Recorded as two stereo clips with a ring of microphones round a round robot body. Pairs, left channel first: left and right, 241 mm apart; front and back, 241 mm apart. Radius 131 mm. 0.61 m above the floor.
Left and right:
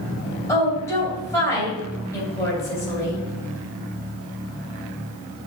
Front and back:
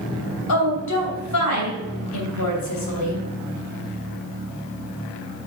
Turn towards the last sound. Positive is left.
turn(degrees=10)